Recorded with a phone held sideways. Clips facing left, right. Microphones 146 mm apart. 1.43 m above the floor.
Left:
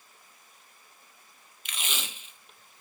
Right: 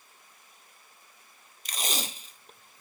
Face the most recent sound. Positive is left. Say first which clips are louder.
# right 4 dB
turn(degrees=-40)  # may be behind; listen again after turning